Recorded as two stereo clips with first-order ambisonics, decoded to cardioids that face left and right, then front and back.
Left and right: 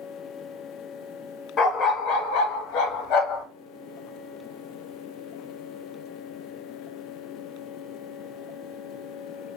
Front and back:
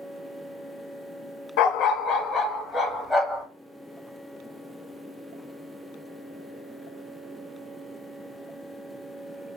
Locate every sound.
1.6 s a dog barking: 30° left, 0.5 m; by 3.5 s 100° left, 1.1 m